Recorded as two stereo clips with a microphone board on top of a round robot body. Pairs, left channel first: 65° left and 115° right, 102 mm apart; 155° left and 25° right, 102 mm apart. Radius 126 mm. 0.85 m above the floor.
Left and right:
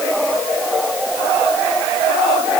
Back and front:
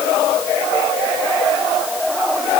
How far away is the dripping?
No dripping in this recording.